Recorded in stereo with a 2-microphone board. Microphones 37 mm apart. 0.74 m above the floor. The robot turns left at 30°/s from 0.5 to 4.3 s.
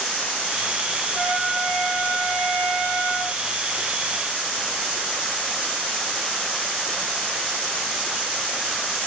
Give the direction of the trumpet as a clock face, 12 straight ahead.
8 o'clock.